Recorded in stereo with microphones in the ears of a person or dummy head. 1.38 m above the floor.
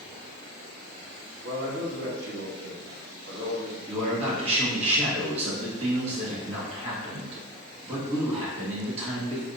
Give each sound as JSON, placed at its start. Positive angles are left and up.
{"t": 1.4, "sound": "a man speaking", "side_deg": -80, "distance_m": 1.8}
{"t": 3.9, "sound": "a man speaking", "side_deg": -45, "distance_m": 1.6}